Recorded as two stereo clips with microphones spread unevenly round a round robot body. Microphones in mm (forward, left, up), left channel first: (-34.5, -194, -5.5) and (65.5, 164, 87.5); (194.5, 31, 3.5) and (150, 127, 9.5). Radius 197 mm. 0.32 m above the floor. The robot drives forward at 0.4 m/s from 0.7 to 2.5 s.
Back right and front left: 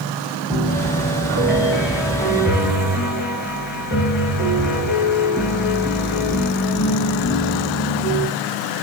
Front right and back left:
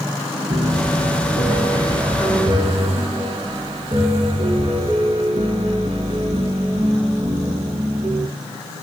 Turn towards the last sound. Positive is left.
turn(degrees=165)